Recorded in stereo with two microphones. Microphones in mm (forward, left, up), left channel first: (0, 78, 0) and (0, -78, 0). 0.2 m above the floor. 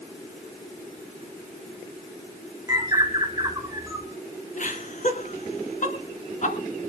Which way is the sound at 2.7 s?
20° right (ahead or behind).